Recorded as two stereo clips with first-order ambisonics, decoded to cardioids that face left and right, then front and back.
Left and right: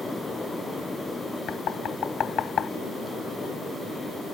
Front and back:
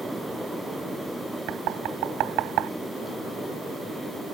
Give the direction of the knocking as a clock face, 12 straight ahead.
7 o'clock.